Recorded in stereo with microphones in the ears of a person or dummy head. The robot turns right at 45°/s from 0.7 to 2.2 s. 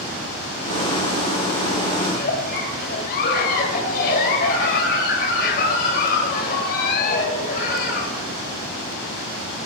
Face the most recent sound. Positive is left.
turn(degrees=50)  # may be behind; listen again after turning